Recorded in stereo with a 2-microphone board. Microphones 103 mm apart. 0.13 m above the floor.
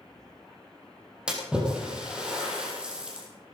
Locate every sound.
1.3 s a splash: 10° right (ahead or behind), 4.5 m